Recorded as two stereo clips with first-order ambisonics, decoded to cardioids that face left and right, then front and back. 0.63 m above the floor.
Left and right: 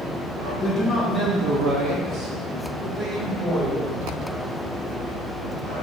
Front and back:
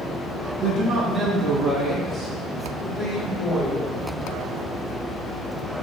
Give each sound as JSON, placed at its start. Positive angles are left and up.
{"t": 0.6, "sound": "a man speaking", "azimuth_deg": 155, "distance_m": 0.9}